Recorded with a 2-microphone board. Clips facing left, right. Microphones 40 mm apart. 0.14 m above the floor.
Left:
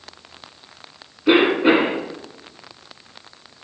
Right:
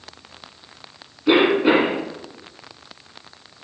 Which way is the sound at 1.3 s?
20° left (ahead or behind).